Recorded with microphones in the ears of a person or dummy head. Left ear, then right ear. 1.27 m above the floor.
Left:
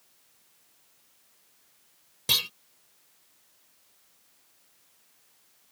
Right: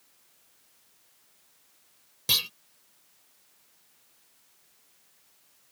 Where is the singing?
No singing in this recording.